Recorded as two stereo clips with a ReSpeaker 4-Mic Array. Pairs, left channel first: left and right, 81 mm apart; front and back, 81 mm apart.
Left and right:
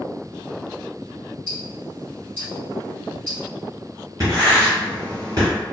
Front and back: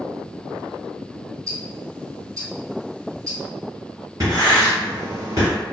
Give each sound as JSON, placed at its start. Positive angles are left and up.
{"t": 1.5, "sound": "ticking", "azimuth_deg": 160, "distance_m": 1.9}
{"t": 4.2, "sound": "writing", "azimuth_deg": -135, "distance_m": 1.4}